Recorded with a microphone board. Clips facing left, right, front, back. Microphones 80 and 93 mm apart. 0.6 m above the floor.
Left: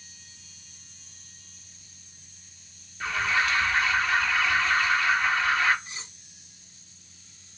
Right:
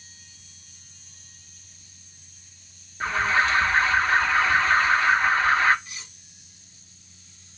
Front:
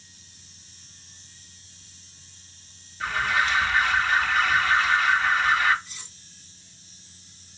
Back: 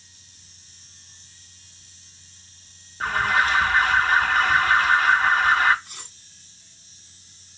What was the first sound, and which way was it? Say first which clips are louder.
An alarm: right 4 dB, back 3 dB; 140° right.